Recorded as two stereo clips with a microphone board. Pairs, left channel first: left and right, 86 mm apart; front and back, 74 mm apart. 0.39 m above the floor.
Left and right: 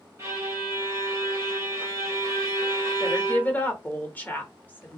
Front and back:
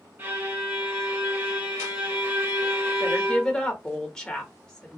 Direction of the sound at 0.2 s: 135° right.